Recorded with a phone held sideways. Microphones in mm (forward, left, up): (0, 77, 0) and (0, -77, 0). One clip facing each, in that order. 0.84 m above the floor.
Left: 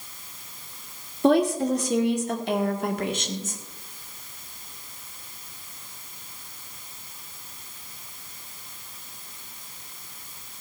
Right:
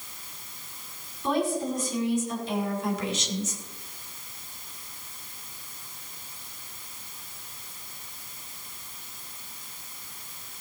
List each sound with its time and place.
1.2 s a woman speaking: 75° left (ahead or behind), 2 m; by 3.6 s 50° left (ahead or behind), 1.7 m